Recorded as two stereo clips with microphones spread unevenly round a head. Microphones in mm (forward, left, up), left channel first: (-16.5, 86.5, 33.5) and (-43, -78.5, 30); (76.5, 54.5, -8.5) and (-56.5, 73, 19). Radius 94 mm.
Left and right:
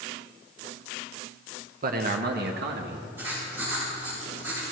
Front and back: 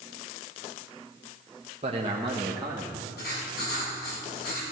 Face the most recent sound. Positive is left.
turn(degrees=-20)